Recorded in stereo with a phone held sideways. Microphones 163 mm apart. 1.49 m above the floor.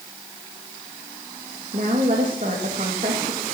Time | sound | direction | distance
1.7 | a woman speaking | 55° right (ahead or behind) | 2.5 m